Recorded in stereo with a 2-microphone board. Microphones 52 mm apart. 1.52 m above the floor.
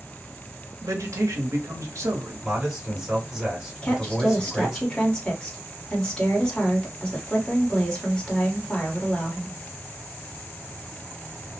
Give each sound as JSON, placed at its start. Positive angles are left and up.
{"t": 0.8, "sound": "a man speaking", "side_deg": -70, "distance_m": 0.9}
{"t": 2.4, "sound": "a man speaking", "side_deg": -5, "distance_m": 1.2}
{"t": 3.8, "sound": "a woman speaking", "side_deg": 20, "distance_m": 1.1}